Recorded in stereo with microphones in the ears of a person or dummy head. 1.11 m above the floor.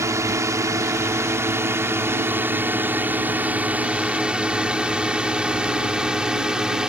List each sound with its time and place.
0.0 s a drone: 10° right (ahead or behind); by 6.9 s centre (ahead or behind)